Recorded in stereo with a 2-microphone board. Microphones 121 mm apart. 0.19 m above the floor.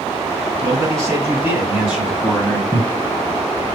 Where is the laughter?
25° left (ahead or behind), 1.2 m.